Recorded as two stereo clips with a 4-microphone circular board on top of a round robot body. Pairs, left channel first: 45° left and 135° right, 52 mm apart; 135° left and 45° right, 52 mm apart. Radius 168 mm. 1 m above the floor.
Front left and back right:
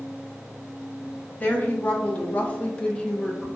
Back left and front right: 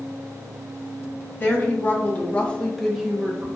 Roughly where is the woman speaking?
Left.